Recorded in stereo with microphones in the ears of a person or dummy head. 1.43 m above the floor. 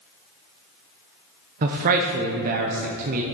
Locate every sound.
1.6 s a man speaking: 45° right (ahead or behind), 0.7 m